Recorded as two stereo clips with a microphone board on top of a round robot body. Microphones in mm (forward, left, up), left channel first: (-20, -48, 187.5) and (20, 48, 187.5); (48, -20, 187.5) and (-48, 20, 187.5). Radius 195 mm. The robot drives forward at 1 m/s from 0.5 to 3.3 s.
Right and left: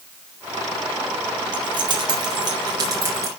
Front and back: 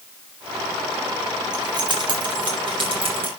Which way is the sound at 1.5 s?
110° left.